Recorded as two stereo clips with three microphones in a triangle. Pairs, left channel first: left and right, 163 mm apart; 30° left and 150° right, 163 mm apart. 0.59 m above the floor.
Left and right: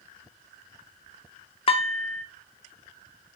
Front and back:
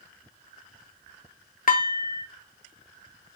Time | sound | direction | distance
1.7 | dishes clattering | 45° left | 0.5 m